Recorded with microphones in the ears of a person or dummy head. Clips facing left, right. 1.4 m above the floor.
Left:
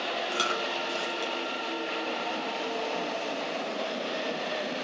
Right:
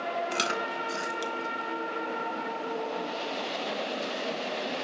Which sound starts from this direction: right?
Chewing, at 0.3 s.